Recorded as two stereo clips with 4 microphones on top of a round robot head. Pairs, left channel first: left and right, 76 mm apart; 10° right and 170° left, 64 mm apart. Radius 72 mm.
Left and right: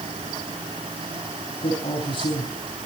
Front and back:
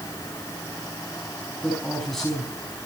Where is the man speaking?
75° left, 4.5 m.